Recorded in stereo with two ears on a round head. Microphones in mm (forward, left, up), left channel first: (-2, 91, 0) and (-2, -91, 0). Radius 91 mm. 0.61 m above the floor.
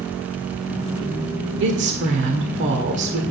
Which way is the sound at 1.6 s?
55° right (ahead or behind).